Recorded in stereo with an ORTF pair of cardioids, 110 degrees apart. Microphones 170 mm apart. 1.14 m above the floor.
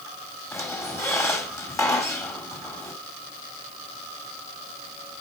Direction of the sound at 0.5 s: 15° left.